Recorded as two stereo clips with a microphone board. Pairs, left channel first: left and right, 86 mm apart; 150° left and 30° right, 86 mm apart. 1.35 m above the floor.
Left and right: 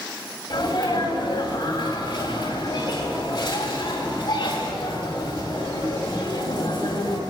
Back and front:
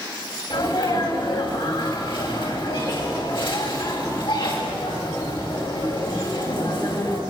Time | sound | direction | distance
0.5 | a sneeze | 130° left | 8 m